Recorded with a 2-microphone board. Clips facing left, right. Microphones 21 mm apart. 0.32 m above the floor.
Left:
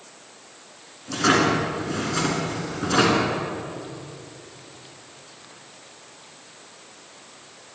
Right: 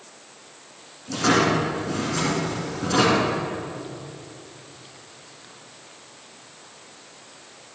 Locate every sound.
1.1 s a drawer: 25° left (ahead or behind), 2.5 m